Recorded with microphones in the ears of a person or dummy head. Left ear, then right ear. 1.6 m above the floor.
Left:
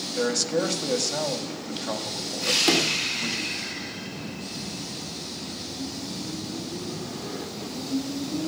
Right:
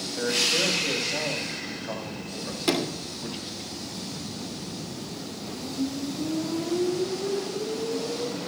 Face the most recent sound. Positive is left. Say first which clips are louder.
# left 2 dB
turn(degrees=10)  # may be behind; listen again after turning